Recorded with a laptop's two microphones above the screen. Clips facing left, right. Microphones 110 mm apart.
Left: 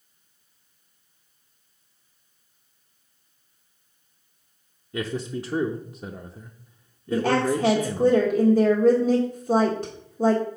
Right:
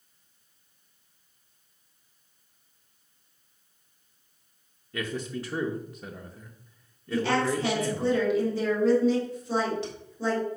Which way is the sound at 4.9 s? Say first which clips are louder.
Left 4 dB; 15° left (ahead or behind).